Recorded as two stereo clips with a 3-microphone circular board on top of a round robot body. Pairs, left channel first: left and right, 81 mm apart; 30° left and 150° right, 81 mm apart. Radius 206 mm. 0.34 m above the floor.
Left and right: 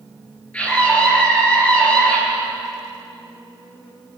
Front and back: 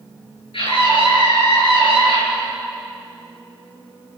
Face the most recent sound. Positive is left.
turn(degrees=15)